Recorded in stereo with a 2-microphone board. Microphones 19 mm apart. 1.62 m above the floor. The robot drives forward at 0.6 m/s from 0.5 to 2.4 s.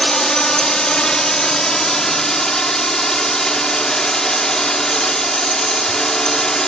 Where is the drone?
45° left (ahead or behind); by 6.7 s 35° left (ahead or behind).